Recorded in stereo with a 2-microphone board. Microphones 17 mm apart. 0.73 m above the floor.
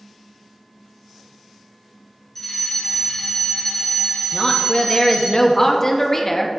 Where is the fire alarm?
15° left (ahead or behind), 1.6 m.